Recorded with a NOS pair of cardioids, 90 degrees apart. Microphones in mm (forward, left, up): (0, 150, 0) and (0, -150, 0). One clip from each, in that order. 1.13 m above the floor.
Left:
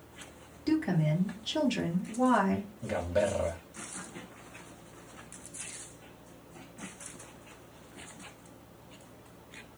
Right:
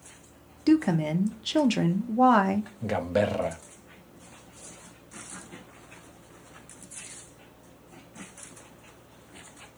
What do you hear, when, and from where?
0.7 s a woman speaking: 50° right, 0.8 m
2.8 s a man speaking: 40° right, 0.6 m